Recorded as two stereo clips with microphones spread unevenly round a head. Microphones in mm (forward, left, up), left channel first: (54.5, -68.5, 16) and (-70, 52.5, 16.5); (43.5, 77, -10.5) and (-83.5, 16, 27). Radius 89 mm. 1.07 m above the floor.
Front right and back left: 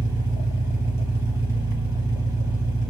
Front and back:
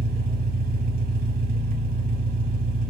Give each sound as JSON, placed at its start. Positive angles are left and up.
{"t": 0.0, "sound": "an engine running", "azimuth_deg": -155, "distance_m": 1.3}